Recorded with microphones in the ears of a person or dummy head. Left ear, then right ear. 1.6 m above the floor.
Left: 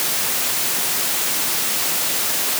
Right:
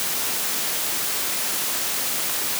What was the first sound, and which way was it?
Only background noise.